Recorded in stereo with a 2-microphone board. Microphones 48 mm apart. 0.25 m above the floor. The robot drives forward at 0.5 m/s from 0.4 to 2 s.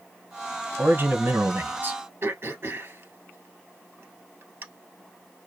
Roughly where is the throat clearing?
Right.